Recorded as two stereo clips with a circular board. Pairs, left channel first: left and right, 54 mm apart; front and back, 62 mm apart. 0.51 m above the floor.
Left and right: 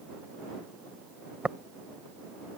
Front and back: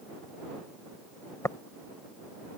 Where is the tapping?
25° right.